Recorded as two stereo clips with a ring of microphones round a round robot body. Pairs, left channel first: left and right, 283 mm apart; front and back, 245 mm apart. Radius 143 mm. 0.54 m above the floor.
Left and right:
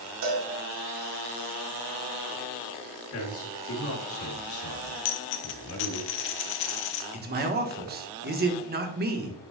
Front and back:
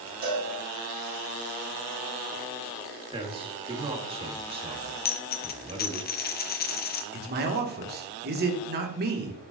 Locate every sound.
0.2 s a cowbell: 125° right, 2.5 m
3.1 s a man speaking: 115° left, 1.8 m
5.0 s a dropped coin: 45° left, 0.9 m
7.1 s a man speaking: 140° right, 1.3 m